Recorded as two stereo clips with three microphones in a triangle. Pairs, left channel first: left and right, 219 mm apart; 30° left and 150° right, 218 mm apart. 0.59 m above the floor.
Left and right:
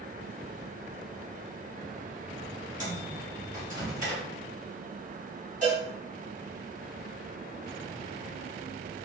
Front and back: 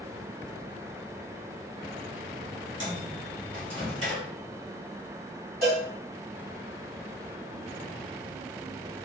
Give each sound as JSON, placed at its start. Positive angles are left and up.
{"t": 2.8, "sound": "a microwave", "azimuth_deg": -140, "distance_m": 1.3}
{"t": 5.6, "sound": "a cowbell", "azimuth_deg": -130, "distance_m": 1.6}